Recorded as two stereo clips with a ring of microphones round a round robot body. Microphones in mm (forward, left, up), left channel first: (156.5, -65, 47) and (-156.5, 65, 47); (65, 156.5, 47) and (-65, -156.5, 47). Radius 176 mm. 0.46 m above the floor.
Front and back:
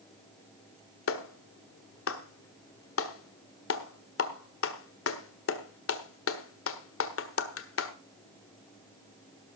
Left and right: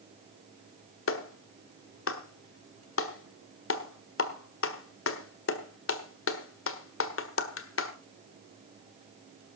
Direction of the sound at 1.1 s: 20° left.